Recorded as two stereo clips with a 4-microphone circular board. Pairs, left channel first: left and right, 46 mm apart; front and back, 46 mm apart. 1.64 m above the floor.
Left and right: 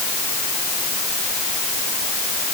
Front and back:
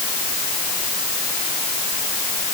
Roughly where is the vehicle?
No vehicle in this recording.